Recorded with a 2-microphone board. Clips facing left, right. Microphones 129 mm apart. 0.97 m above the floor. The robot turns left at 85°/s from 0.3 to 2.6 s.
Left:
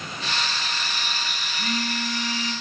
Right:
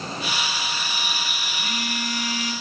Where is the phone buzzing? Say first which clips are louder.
Left 3 dB; 105° left, 3 m; by 2.5 s 25° left, 3 m.